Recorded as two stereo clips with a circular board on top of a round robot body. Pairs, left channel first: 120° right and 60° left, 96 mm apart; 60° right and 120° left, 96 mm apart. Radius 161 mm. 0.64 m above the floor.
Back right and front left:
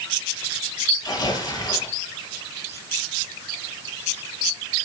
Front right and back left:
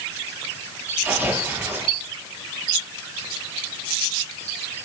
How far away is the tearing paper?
About 6 m.